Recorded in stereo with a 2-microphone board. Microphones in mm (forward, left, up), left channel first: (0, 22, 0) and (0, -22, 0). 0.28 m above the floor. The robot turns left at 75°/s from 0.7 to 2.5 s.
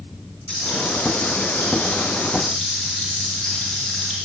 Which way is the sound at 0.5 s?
145° left.